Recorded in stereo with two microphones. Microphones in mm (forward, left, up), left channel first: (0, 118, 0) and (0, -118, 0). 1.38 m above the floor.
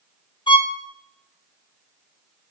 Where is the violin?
20° left (ahead or behind), 0.5 m.